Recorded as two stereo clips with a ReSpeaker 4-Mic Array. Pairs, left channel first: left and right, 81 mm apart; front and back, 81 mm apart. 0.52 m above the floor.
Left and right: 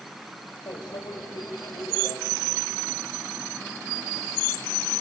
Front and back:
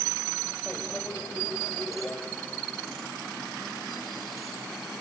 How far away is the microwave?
About 2.5 m.